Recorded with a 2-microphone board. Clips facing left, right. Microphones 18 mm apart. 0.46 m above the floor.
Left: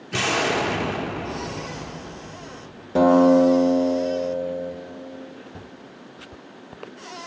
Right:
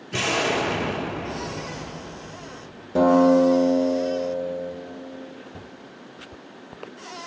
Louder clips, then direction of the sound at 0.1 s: Left 1 dB; 20° left (ahead or behind).